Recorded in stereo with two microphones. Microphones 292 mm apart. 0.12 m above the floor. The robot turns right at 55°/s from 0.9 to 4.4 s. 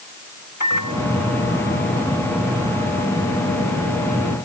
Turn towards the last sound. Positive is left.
turn(degrees=-70)